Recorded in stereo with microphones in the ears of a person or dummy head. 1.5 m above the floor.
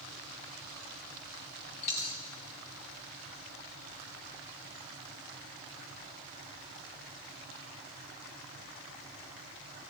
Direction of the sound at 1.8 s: 25° left (ahead or behind).